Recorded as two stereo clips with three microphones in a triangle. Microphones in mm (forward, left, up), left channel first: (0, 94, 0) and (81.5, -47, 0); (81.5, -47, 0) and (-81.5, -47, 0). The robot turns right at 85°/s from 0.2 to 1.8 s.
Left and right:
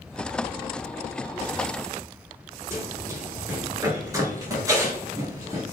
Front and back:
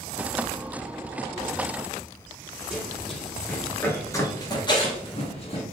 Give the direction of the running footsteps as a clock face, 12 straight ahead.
4 o'clock.